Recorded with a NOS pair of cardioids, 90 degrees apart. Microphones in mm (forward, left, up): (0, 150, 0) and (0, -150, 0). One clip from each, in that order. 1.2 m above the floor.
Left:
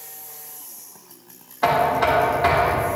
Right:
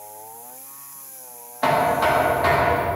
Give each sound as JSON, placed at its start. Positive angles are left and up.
{"t": 1.6, "sound": "knocking", "azimuth_deg": 10, "distance_m": 1.5}